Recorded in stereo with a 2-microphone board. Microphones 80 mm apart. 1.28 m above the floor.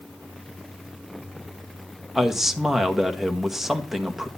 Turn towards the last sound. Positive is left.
turn(degrees=-5)  # may be behind; listen again after turning